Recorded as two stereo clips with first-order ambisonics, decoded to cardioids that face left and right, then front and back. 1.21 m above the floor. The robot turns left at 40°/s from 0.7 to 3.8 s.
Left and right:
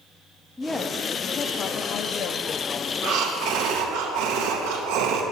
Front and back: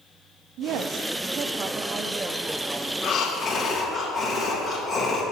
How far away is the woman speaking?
About 0.5 m.